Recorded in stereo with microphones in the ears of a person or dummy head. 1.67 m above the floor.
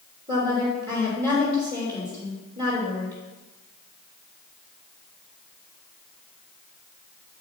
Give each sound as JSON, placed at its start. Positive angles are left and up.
{"t": 0.3, "sound": "a woman speaking", "side_deg": -25, "distance_m": 3.0}